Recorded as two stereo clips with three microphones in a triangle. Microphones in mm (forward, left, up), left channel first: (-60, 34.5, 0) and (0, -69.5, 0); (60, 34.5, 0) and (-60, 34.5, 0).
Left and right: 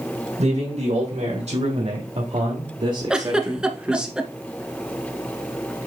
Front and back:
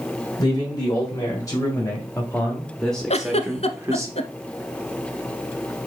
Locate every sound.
0.4 s a man speaking: 55° right, 3 m; by 4.1 s 145° right, 1.2 m
3.1 s a giggle: 25° left, 0.8 m